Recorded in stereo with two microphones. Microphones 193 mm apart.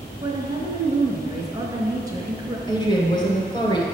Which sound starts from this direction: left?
A woman speaking, at 2.7 s.